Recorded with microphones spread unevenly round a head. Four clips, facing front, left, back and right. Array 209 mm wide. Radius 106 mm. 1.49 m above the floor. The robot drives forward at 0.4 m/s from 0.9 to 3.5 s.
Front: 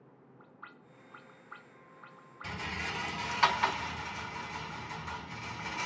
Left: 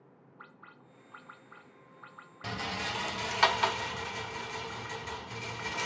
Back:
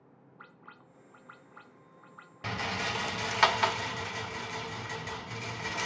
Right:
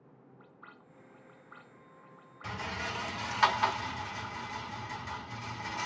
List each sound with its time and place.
2.4 s a rattle: 145° left, 0.6 m; by 5.9 s 160° left, 1.0 m